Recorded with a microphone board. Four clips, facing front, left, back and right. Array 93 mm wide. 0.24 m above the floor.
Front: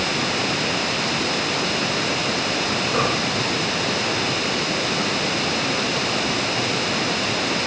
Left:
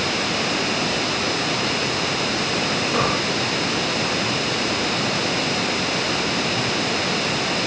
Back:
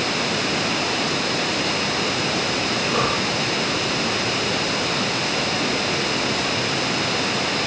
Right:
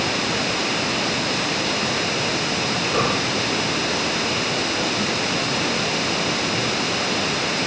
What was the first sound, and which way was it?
Only background noise.